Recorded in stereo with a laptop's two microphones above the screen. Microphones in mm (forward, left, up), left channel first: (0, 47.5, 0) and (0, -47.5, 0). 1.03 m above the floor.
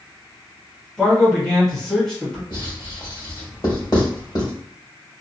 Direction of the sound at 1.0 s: 5° left (ahead or behind).